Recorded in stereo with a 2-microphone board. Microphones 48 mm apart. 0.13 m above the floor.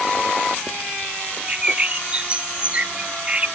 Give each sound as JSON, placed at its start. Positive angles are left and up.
{"t": 1.5, "sound": "a bird", "side_deg": -25}